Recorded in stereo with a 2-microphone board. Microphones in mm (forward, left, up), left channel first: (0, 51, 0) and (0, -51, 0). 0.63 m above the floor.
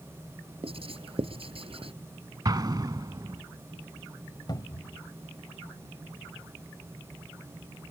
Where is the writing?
65° right (ahead or behind).